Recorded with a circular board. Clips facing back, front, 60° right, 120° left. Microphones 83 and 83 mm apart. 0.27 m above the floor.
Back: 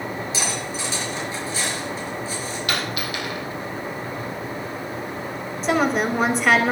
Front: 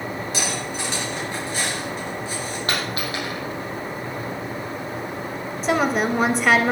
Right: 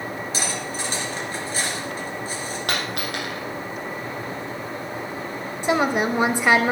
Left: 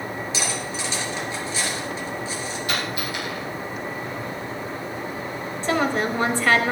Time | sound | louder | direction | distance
0.3 | cutlery clinking | even, right 1 dB | 20° right | 3.5 m
2.7 | a dropped coin | even, right 1 dB | 50° right | 5 m
5.6 | a woman speaking | even, right 2 dB | 90° right | 0.9 m